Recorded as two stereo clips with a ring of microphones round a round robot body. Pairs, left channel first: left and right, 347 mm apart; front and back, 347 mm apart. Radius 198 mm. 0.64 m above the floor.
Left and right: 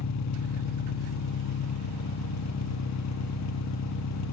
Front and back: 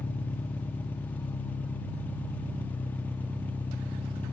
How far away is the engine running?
About 1.2 m.